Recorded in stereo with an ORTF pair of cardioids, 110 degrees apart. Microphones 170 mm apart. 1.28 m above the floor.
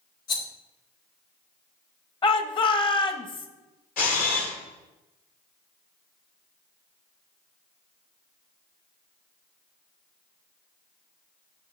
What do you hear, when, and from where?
0.3 s a rattle: 65° left, 2.0 m
2.2 s a shout: 30° left, 1.2 m
4.0 s a camera shutter: 60° left, 2.5 m